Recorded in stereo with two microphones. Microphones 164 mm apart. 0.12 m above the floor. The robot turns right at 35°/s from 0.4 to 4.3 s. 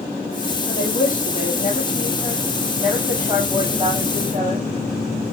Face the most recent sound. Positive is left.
turn(degrees=-130)